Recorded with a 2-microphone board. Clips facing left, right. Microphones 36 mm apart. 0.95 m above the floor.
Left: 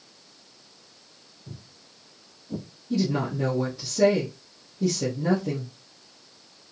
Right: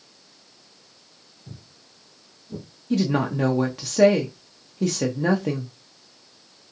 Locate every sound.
1.5 s footsteps: 15° right (ahead or behind), 1.4 m; by 2.7 s 35° left (ahead or behind), 1.0 m
2.9 s a woman speaking: 60° right (ahead or behind), 0.5 m